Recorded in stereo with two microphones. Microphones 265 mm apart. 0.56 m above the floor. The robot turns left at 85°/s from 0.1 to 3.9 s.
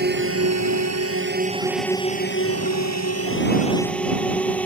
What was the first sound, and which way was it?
A drone, 40° right (ahead or behind).